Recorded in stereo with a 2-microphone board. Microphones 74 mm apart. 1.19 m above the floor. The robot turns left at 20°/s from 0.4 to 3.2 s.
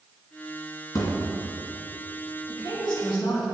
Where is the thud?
55° left (ahead or behind), 1.8 m.